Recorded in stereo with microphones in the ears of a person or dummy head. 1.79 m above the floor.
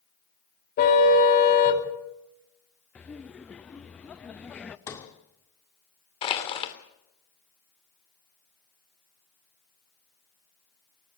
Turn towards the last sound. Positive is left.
turn(degrees=35)  # may be behind; listen again after turning